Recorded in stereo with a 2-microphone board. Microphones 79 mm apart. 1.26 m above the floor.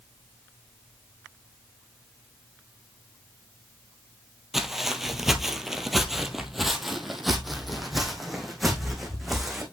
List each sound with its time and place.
4.5 s footsteps: 5° right (ahead or behind), 1.3 m; by 9.6 s centre (ahead or behind), 3.5 m